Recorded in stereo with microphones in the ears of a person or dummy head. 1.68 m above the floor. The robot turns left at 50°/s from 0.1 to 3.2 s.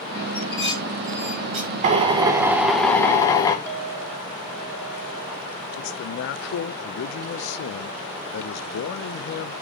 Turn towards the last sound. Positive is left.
turn(degrees=60)  # may be behind; listen again after turning